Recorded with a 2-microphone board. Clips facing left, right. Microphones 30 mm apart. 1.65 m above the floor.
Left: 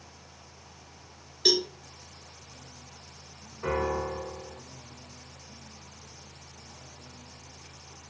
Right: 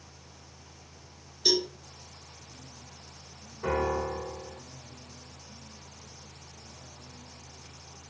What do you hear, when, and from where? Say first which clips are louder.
1.4 s a cowbell: left 2 dB; 55° left (ahead or behind), 1.8 m
3.6 s a piano: even; 30° left (ahead or behind), 3 m